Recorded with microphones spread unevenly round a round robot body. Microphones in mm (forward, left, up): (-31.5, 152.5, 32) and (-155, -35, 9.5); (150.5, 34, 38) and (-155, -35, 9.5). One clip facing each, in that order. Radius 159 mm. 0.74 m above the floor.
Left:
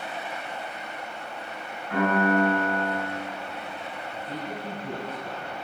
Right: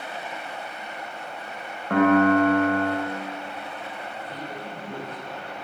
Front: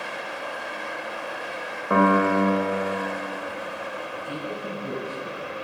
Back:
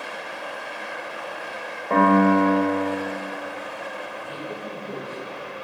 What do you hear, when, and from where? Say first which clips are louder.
1.9 s a piano: right 6 dB, back 3 dB; 65° right, 2 m
4.1 s a man speaking: left 4 dB, front 2 dB; 30° left, 6.5 m